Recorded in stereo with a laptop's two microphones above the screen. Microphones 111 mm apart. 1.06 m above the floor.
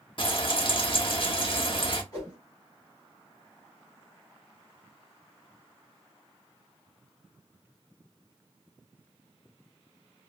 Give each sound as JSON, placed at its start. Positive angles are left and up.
{"t": 0.2, "sound": "frying", "side_deg": 50, "distance_m": 1.1}
{"t": 2.1, "sound": "a whoosh", "side_deg": 35, "distance_m": 2.5}